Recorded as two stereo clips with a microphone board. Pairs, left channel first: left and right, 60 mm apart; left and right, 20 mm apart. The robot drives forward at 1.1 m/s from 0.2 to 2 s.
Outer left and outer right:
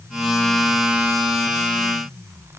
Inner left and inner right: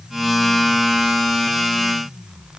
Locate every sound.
Only background noise.